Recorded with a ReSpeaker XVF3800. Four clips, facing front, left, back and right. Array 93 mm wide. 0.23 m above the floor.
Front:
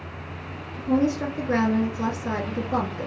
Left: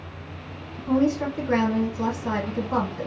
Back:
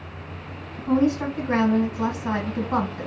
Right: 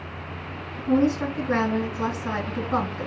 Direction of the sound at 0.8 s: 165° left.